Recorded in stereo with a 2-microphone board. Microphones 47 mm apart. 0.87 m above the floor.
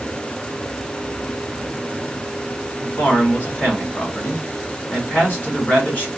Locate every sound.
2.8 s a man speaking: 35° left (ahead or behind), 2 m